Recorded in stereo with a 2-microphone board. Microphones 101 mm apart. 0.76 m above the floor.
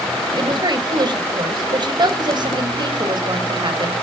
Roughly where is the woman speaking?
Right.